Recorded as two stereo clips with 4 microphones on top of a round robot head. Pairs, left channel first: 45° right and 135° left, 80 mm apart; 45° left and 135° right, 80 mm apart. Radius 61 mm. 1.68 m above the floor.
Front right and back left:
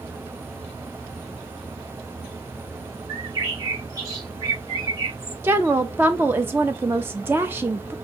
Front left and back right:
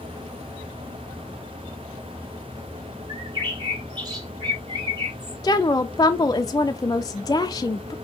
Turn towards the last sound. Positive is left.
turn(degrees=80)